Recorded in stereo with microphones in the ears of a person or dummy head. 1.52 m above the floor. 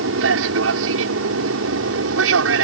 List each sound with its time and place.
0.0 s an aircraft: 70° right (ahead or behind); by 2.6 s 75° right (ahead or behind)